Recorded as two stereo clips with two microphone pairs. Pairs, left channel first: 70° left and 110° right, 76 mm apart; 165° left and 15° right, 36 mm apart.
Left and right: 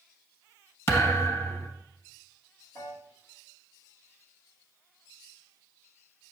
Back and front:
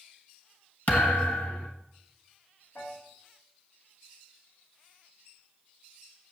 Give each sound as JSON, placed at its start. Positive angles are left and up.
{"t": 0.9, "sound": "a thud", "azimuth_deg": 125, "distance_m": 1.3}
{"t": 2.8, "sound": "a piano", "azimuth_deg": 125, "distance_m": 4.0}